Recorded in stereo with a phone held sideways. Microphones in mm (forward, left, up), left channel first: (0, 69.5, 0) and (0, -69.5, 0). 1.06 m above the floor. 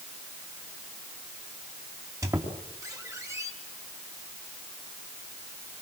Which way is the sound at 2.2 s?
20° right (ahead or behind).